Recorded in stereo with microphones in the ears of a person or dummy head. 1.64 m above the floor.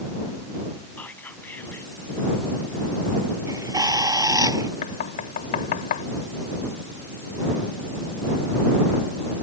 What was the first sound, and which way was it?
Whispering, 10° left (ahead or behind).